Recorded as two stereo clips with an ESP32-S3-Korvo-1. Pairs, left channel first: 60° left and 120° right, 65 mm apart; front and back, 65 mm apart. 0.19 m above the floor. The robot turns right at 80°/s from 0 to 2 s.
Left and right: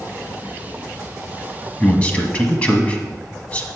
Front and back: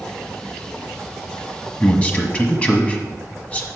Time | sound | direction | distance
1.8 | a man speaking | 10° left | 1.1 m